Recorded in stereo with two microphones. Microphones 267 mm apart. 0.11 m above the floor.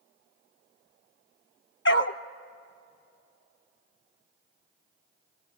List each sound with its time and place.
1.9 s a dog barking: 50° left (ahead or behind), 0.8 m